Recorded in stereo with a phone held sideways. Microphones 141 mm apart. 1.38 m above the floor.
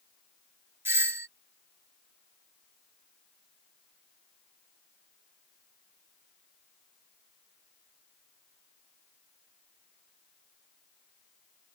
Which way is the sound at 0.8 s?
15° right (ahead or behind).